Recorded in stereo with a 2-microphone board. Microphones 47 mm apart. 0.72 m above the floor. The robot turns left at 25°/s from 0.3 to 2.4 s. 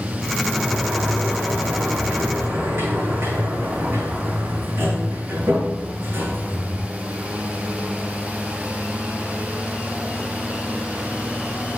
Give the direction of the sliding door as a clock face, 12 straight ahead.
12 o'clock.